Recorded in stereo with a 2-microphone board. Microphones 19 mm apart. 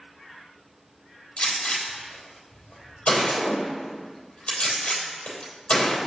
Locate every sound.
1.4 s a gunshot: 70° left (ahead or behind), 3 m